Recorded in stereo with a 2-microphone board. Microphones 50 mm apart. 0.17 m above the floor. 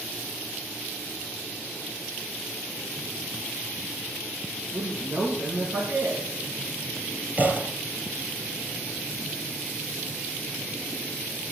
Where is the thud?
35° right (ahead or behind), 5 m.